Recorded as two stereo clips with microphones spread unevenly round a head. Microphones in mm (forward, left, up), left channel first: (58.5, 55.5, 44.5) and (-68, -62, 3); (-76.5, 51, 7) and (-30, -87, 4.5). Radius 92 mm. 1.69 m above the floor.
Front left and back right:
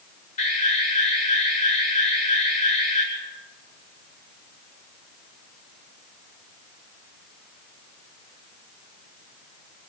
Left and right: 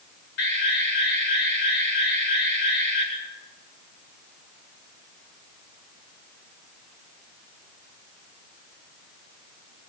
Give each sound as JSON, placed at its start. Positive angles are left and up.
{"t": 0.4, "sound": "an alarm", "azimuth_deg": 95, "distance_m": 9.5}